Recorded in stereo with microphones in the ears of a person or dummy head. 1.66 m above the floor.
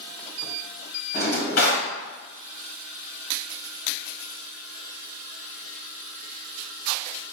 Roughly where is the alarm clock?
No alarm clock in this recording.